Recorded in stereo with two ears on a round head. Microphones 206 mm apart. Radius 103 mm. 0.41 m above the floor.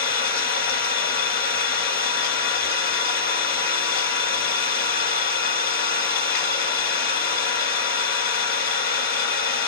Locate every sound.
0.0 s an engine running: 45° left (ahead or behind), 1.6 m